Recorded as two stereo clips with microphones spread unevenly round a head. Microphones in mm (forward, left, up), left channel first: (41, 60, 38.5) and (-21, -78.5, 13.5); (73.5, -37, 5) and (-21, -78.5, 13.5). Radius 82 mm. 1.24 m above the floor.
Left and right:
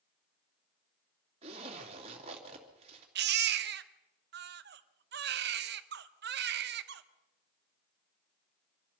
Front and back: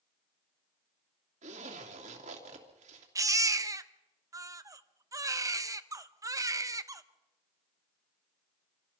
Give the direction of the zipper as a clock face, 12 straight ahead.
6 o'clock.